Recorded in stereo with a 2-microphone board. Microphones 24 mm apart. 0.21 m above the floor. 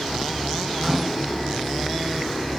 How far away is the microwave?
About 1.5 m.